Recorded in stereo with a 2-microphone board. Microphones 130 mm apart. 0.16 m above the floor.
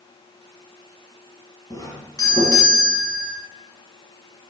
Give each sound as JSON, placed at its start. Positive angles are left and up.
{"t": 1.7, "sound": "a doorbell", "side_deg": 30, "distance_m": 2.5}